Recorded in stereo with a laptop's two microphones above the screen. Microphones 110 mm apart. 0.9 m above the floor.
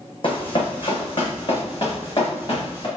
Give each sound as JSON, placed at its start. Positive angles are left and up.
{"t": 0.2, "sound": "running footsteps", "side_deg": 50, "distance_m": 2.5}